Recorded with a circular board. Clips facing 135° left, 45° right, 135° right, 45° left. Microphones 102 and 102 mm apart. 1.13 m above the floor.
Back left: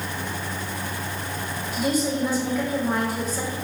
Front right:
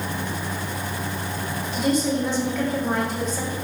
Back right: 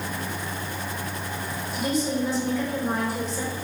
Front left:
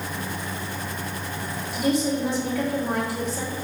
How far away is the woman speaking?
About 3.5 m.